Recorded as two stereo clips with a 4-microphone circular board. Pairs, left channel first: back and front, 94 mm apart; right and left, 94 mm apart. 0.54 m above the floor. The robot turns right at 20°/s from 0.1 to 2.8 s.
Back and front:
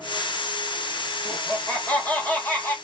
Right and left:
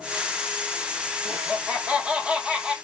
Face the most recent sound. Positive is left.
turn(degrees=160)